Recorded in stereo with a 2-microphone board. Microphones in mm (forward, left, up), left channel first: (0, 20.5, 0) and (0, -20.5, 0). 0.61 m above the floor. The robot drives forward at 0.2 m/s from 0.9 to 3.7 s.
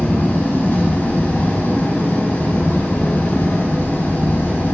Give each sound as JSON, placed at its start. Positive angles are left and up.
{"t": 0.0, "sound": "an engine running", "side_deg": 80, "distance_m": 4.5}